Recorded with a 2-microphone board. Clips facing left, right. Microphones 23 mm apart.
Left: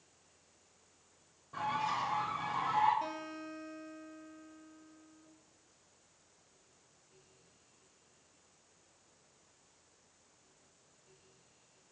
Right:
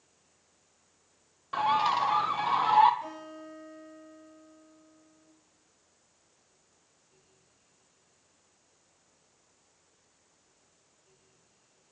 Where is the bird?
75° right (ahead or behind), 0.6 m.